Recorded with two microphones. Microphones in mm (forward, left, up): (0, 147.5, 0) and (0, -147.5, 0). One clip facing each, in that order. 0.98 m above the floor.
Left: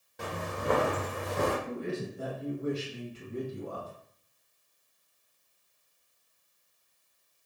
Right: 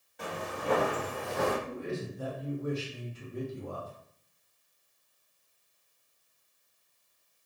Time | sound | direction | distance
0.2 | footsteps | 50° left (ahead or behind) | 1.5 m
1.7 | a man speaking | 60° left (ahead or behind) | 1.4 m